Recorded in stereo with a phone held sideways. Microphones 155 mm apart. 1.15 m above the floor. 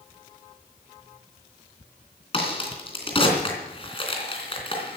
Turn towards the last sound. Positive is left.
turn(degrees=35)  # may be behind; listen again after turning